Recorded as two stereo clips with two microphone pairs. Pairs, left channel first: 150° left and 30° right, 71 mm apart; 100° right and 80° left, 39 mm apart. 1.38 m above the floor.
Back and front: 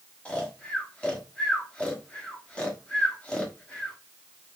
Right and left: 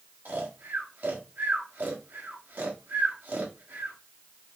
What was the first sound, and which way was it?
Snoring, 75° left.